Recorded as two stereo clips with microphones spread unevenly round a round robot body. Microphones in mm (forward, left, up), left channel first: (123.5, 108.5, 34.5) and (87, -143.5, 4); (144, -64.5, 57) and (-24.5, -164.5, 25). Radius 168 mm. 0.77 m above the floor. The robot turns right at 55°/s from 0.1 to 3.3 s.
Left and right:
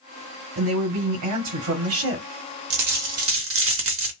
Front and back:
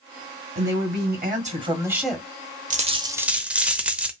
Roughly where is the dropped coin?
Right.